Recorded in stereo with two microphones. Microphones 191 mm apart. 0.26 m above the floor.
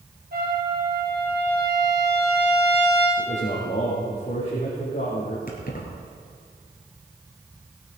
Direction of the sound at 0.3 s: 55° right (ahead or behind).